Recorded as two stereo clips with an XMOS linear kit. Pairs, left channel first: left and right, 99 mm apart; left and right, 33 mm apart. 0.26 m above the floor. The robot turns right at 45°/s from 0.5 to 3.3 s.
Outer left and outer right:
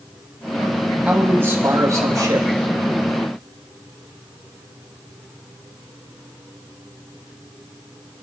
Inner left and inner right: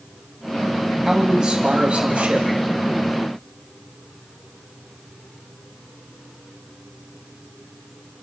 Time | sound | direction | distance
1.1 | a man speaking | 155° right | 1.8 m